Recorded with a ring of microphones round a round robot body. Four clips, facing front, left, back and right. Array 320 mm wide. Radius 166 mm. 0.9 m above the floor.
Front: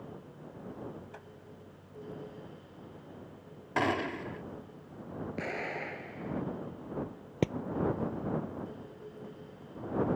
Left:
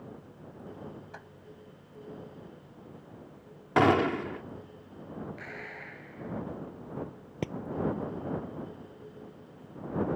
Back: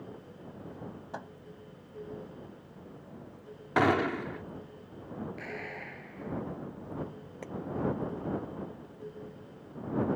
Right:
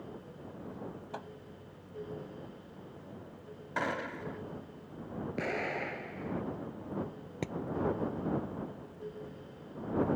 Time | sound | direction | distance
1.1 | a microwave | 160° right | ?
3.8 | a gunshot | 110° left | ?
5.4 | an explosion | 60° right | ?
7.4 | hammering | 5° left | ?